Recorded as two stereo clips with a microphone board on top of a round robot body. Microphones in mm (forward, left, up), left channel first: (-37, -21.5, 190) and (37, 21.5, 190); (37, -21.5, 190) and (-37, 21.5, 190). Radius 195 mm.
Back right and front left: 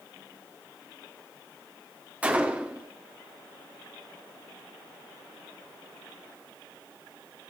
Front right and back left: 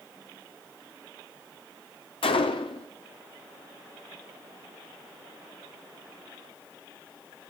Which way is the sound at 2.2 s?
45° right.